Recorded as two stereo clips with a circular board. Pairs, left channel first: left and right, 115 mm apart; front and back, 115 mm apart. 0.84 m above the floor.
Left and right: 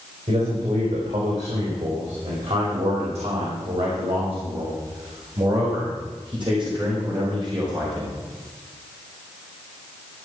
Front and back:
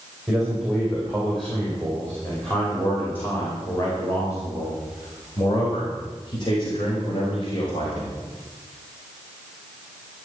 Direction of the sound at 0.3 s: 90° right.